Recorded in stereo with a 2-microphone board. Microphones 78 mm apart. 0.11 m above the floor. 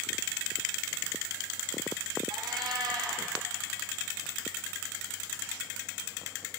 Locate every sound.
2.3 s a cat meowing: 65° right (ahead or behind), 1.0 m